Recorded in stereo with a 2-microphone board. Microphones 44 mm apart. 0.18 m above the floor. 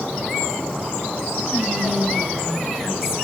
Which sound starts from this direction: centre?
Whispering, at 1.5 s.